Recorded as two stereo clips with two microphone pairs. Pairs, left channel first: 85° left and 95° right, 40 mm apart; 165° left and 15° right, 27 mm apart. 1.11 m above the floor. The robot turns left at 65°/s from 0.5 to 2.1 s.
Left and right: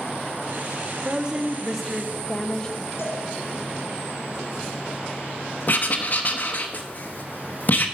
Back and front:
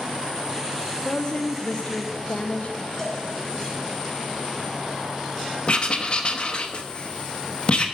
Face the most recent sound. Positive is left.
turn(degrees=120)